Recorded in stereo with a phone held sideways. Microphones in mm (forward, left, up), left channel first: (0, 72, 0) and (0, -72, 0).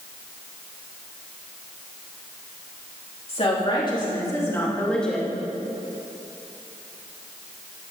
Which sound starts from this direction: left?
A woman speaking, at 3.3 s.